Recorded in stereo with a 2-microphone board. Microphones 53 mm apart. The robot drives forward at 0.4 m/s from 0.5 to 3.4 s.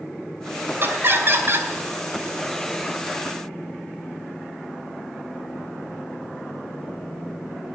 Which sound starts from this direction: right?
Laughter, at 0.8 s.